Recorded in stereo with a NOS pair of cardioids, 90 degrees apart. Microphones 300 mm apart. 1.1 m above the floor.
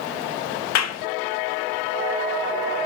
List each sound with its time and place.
0.8 s a clap: 60° left, 0.8 m